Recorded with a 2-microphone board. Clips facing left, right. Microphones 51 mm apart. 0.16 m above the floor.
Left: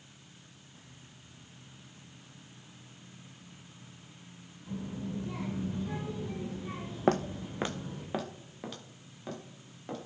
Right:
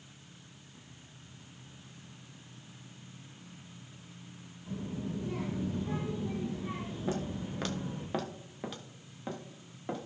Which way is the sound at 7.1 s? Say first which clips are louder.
Left 8 dB; 65° left (ahead or behind).